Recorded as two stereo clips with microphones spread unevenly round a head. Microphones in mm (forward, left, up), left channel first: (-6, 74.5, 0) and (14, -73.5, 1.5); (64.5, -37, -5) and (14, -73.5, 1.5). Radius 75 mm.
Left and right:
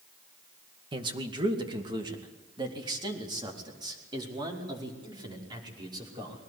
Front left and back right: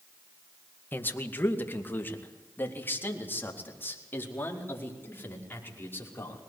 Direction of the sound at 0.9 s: 20° right.